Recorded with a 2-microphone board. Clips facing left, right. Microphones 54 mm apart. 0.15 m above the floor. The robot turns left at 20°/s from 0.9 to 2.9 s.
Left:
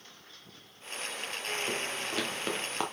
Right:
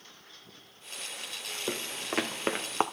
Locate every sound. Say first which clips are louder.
1.7 s footsteps: left 1 dB; 45° right (ahead or behind), 1.9 m; by 2.8 s 35° right (ahead or behind), 1.2 m